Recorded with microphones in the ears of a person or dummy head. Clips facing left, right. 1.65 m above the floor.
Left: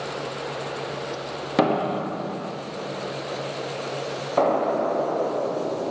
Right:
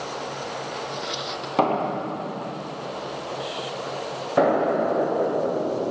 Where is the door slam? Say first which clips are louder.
Left 1 dB; 20° left (ahead or behind), 1.3 m.